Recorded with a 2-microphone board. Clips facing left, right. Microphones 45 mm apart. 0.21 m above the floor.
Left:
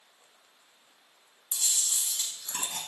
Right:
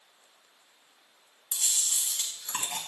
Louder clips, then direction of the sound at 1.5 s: Even; 45° right (ahead or behind).